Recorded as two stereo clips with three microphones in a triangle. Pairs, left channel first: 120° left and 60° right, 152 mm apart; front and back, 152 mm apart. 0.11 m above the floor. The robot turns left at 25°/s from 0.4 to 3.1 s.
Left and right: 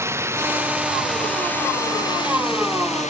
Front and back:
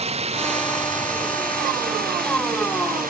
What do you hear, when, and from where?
0.0 s running water: 135° right; by 3.1 s 160° left